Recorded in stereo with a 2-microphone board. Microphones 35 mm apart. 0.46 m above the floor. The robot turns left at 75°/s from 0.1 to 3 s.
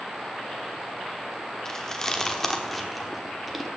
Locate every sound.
1.6 s chewing: 20° left (ahead or behind), 1.1 m; by 3.7 s centre (ahead or behind), 1.1 m